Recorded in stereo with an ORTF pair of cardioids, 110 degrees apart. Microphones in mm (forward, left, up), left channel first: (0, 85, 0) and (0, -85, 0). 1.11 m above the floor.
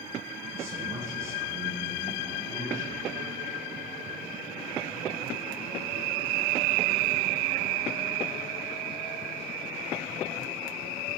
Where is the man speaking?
20° right, 8.5 m.